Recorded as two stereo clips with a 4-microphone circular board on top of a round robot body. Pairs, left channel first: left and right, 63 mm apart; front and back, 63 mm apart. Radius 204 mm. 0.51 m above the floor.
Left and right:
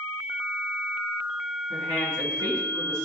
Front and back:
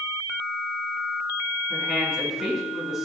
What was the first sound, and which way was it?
A woman speaking, 95° right.